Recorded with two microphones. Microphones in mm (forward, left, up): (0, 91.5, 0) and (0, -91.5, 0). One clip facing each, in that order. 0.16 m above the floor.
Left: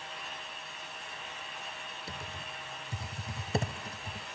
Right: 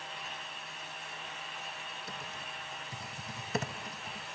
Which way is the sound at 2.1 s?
30° left (ahead or behind).